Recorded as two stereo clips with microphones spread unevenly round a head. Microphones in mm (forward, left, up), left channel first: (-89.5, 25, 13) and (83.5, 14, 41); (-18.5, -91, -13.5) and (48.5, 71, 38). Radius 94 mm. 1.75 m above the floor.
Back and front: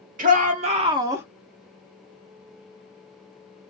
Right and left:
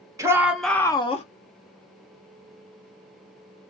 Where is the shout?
15° left, 0.8 m; by 1.2 s 60° right, 0.6 m.